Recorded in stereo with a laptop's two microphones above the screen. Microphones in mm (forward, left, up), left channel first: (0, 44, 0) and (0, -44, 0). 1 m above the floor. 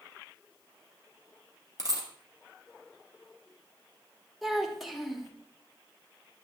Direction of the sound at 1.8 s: 40° right (ahead or behind).